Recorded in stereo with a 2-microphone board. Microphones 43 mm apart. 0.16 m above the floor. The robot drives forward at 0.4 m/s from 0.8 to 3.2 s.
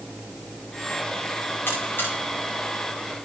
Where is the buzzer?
55° left (ahead or behind), 6.5 m.